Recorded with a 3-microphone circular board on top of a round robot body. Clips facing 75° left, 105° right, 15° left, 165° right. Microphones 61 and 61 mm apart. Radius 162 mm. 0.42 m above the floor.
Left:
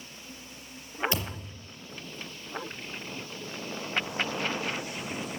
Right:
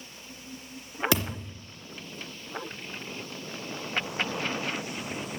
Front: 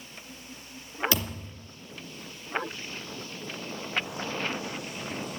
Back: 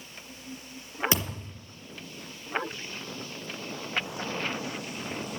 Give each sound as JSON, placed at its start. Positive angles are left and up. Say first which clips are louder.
{"t": 1.1, "sound": "a thud", "louder": "right 5 dB, even", "azimuth_deg": -95, "distance_m": 3.0}